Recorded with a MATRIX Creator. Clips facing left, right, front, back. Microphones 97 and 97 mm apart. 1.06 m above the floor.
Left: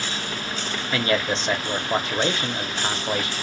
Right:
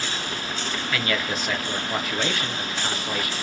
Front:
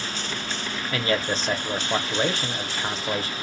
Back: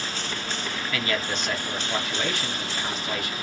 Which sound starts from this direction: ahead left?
A man speaking, at 0.9 s.